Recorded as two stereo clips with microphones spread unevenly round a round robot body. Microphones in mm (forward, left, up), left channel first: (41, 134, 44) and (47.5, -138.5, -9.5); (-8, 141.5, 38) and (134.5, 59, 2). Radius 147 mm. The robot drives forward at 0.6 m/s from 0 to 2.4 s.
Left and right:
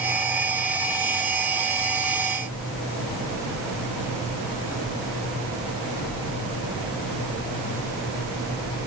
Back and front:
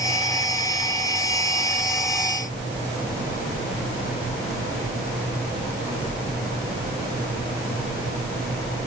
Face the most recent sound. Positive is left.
No sound to turn to.